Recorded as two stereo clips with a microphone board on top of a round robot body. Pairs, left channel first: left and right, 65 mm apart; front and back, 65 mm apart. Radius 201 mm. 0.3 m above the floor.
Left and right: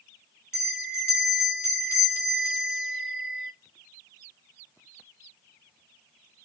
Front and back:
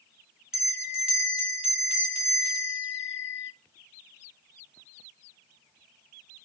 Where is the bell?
105° left, 1.6 m.